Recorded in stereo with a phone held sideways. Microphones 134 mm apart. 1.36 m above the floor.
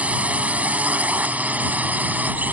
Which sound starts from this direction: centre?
A drone, at 0.0 s.